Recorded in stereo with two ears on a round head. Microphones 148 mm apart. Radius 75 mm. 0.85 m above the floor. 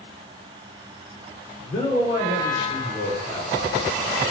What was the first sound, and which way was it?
A man speaking, 60° left (ahead or behind).